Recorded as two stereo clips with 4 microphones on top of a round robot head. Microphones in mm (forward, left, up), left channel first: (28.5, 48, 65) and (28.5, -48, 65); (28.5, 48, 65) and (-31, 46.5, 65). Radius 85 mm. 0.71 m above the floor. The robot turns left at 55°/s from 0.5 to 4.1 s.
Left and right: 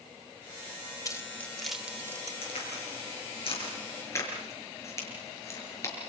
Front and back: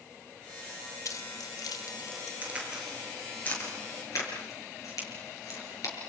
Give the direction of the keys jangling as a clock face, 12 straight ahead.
11 o'clock.